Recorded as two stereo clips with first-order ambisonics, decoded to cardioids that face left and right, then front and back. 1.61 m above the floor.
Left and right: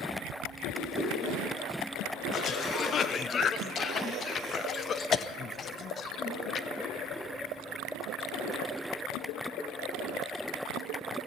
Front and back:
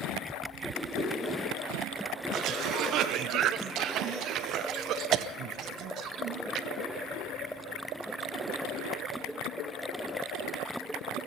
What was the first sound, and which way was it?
A whoosh, 55° left.